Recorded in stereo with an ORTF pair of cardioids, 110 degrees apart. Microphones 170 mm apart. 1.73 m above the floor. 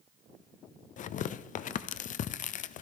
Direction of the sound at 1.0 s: 50° left.